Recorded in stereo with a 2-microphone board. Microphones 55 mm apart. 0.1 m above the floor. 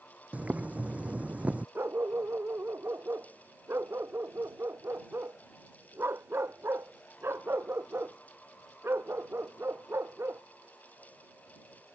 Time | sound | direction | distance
0.3 | boiling | 25° right (ahead or behind) | ?
1.8 | a dog barking | 45° right (ahead or behind) | ?